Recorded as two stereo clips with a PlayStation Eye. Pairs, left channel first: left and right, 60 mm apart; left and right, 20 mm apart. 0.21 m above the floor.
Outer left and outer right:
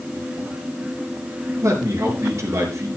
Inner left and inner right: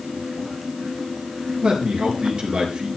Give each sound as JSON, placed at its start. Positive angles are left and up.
{"t": 1.6, "sound": "a man speaking", "side_deg": -55, "distance_m": 4.0}